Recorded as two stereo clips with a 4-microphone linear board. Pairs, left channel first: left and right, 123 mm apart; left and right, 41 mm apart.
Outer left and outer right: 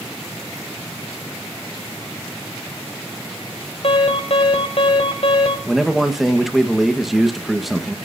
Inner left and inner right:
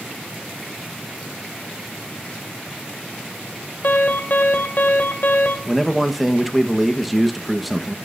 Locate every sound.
3.8 s an alarm: 60° left (ahead or behind), 2.0 m
5.7 s a man speaking: centre (ahead or behind), 1.2 m